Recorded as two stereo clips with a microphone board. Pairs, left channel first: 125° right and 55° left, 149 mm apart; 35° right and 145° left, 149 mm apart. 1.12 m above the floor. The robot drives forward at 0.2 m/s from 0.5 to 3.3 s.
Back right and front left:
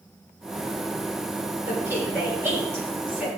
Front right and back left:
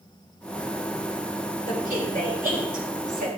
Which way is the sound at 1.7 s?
135° left.